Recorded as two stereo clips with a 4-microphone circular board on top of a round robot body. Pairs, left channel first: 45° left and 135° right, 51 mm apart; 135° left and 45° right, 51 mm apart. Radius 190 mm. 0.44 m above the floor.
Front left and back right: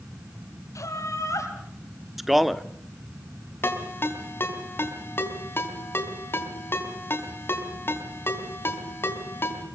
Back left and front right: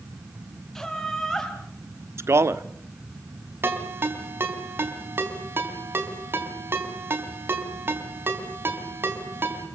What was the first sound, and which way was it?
Laughter, 55° left.